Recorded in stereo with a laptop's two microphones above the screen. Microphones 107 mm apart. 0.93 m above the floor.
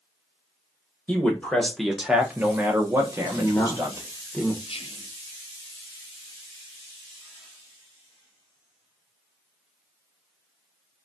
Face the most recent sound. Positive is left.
turn(degrees=60)  # may be behind; listen again after turning